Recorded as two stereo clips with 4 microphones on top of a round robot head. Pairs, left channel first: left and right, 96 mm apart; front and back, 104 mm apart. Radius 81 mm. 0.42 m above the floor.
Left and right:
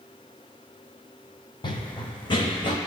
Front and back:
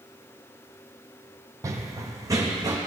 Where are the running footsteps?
125° left, 0.8 m.